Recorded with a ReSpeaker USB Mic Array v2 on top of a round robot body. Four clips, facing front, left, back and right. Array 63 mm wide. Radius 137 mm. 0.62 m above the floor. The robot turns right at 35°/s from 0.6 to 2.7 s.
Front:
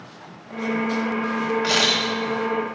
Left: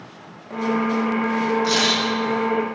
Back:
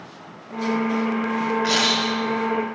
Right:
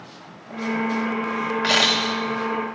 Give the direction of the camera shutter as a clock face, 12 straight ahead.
3 o'clock.